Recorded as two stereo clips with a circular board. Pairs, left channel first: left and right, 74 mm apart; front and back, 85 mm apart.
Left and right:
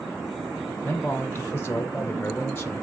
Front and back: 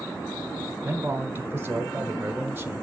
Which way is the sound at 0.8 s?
135° left.